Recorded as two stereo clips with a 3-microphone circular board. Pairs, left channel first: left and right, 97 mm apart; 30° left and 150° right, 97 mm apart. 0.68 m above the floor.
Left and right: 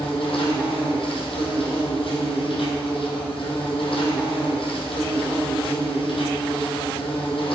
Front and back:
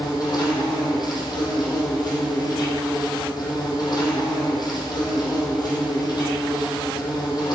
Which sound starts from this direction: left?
An insect, at 0.0 s.